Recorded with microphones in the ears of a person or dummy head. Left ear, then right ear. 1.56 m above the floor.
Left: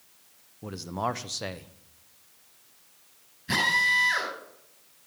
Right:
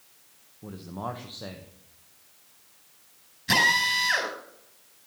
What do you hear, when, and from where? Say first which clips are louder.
0.6 s a man speaking: left 5 dB; 65° left (ahead or behind), 0.9 m
3.5 s a drill: right 2 dB; 30° right (ahead or behind), 8.5 m